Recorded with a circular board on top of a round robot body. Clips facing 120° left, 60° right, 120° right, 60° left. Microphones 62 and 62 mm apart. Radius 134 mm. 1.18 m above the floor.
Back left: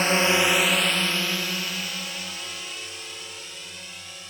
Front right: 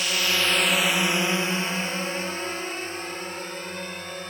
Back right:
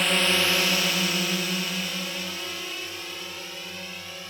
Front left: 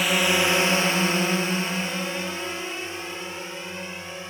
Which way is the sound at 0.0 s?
145° left.